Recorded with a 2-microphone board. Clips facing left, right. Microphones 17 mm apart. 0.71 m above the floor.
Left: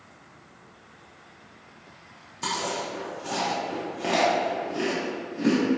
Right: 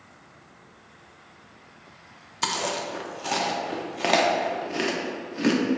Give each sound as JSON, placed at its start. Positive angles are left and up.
{"t": 2.4, "sound": "chewing", "side_deg": -55, "distance_m": 0.6}